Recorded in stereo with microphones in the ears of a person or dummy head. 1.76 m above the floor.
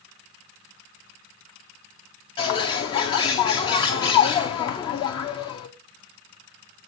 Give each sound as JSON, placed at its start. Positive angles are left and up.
{"t": 2.4, "sound": "a bird", "side_deg": 25, "distance_m": 0.6}